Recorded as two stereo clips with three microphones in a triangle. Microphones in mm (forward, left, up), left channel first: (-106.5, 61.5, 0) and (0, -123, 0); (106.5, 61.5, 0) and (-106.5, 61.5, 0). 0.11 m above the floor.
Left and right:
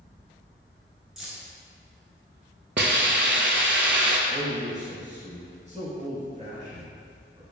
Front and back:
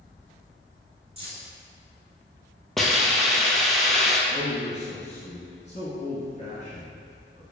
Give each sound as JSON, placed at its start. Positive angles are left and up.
{"t": 1.2, "sound": "keys jangling", "azimuth_deg": -145, "distance_m": 1.0}
{"t": 2.8, "sound": "a hiss", "azimuth_deg": -90, "distance_m": 0.5}
{"t": 4.3, "sound": "a man speaking", "azimuth_deg": -30, "distance_m": 1.8}